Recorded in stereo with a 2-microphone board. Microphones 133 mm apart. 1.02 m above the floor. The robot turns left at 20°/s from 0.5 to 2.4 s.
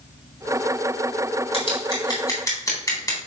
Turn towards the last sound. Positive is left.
turn(degrees=25)  # may be behind; listen again after turning